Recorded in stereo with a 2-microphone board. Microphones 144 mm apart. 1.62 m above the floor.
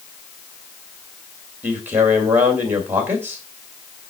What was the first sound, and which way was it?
A man speaking, 15° right (ahead or behind).